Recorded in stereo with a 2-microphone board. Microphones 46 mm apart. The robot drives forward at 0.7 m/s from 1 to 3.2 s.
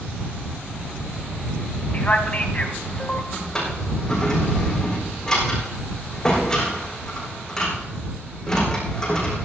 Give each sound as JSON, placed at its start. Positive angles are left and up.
{"t": 1.9, "sound": "a man speaking", "side_deg": 30, "distance_m": 1.6}
{"t": 3.3, "sound": "a drawer", "side_deg": 15, "distance_m": 5.5}